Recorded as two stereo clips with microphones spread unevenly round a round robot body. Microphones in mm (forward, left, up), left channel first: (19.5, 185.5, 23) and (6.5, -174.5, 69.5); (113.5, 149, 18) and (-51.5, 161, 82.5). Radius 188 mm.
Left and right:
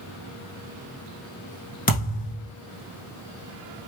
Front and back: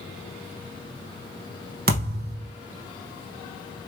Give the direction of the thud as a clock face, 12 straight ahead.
7 o'clock.